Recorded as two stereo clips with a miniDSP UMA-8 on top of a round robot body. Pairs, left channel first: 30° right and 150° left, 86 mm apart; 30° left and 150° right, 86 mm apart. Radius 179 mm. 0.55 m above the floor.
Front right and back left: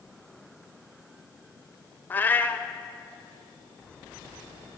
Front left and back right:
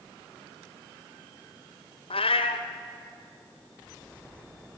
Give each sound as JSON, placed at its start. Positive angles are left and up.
{"t": 2.1, "sound": "a cat meowing", "azimuth_deg": 40, "distance_m": 0.9}